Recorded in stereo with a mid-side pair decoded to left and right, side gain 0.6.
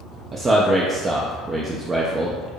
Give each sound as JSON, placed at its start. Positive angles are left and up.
{"t": 0.3, "sound": "a man speaking", "azimuth_deg": -30, "distance_m": 0.5}